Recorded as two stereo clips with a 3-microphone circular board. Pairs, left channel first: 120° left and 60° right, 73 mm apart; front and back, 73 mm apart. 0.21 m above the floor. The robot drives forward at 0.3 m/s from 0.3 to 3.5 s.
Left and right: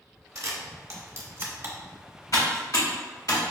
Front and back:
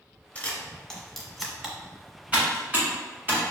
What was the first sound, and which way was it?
A camera shutter, 65° right.